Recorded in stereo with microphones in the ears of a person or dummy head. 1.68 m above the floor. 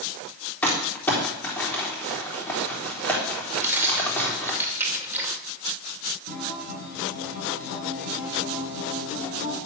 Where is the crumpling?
5° left (ahead or behind), 3.5 m.